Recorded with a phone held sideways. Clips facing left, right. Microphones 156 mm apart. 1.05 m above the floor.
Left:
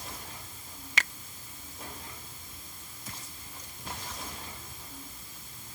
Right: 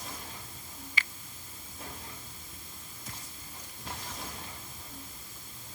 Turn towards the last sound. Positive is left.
turn(degrees=80)